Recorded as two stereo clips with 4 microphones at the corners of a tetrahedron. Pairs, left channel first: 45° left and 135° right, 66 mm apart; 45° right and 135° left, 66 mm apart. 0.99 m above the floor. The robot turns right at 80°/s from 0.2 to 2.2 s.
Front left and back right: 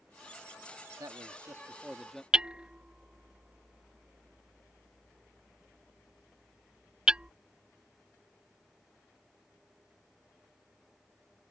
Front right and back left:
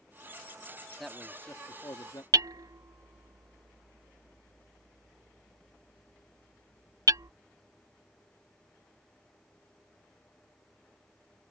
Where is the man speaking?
135° right; by 2.2 s 40° right.